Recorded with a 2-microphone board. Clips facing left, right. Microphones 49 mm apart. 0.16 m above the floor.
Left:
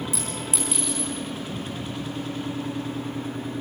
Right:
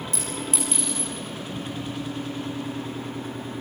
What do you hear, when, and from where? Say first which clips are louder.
0.1 s a clink: even; 5° left (ahead or behind), 7 m